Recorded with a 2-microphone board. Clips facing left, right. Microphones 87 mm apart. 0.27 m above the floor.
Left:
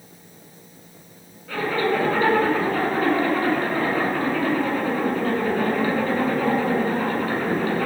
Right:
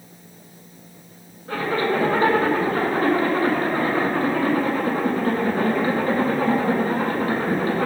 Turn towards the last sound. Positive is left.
turn(degrees=-35)  # may be behind; listen again after turning